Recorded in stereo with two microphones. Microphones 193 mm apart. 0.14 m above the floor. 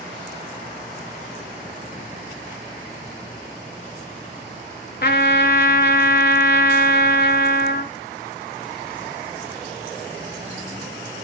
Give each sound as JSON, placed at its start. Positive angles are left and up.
{"t": 5.0, "sound": "a trumpet", "side_deg": 55, "distance_m": 0.6}